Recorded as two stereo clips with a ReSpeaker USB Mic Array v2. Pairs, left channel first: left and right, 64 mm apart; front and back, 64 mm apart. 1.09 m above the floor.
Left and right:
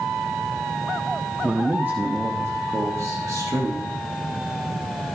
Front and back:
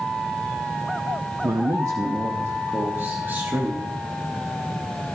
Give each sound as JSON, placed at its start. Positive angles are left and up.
{"t": 1.4, "sound": "a man speaking", "azimuth_deg": -165, "distance_m": 1.1}